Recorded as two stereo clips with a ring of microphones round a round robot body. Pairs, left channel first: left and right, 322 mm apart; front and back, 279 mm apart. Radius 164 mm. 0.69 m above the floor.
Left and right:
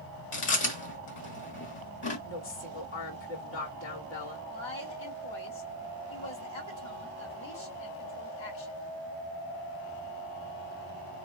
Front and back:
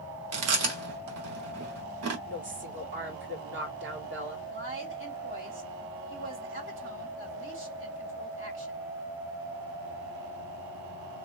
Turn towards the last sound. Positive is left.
turn(degrees=140)